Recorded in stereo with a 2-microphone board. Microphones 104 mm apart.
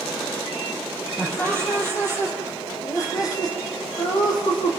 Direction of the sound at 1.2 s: 15° left (ahead or behind).